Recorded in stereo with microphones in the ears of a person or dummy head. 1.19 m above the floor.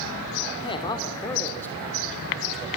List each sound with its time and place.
0.6 s a man speaking: 35° left (ahead or behind), 3 m; by 2.7 s centre (ahead or behind), 4 m